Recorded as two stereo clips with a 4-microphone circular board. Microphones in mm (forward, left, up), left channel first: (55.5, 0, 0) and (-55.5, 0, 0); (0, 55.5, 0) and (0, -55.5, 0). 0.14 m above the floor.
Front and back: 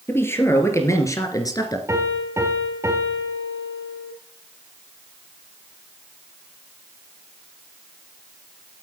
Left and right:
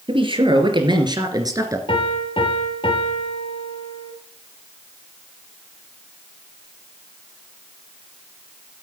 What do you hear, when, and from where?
0.1 s a man speaking: 65° right, 3 m; by 1.8 s 40° right, 2.5 m
1.9 s a piano: 120° left, 2.5 m